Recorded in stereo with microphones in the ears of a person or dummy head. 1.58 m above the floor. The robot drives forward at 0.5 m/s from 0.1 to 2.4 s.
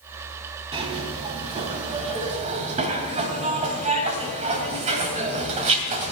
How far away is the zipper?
About 3.5 m.